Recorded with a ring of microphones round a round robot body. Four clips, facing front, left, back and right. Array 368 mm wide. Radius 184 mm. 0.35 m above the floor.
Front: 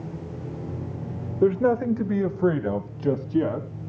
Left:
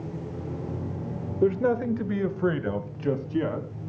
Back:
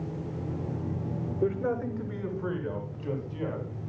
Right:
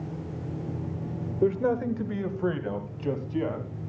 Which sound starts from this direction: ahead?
A man speaking, at 1.4 s.